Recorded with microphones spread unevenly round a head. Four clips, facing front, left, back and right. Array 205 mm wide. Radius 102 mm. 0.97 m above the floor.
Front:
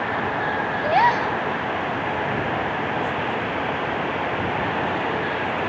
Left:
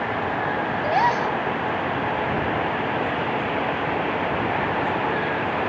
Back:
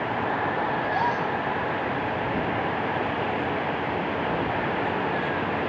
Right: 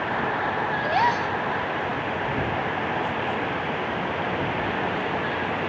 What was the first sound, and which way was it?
A gasp, 20° left.